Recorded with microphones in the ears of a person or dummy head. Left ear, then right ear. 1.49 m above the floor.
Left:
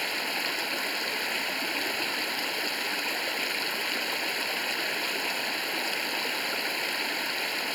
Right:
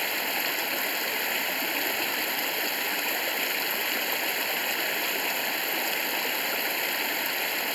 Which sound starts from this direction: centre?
Running water, at 0.0 s.